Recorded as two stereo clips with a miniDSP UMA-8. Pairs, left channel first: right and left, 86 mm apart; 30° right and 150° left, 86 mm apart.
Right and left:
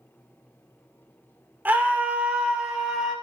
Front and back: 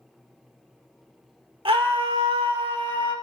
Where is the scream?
160° left, 2.5 m; by 3.1 s 175° left, 4 m.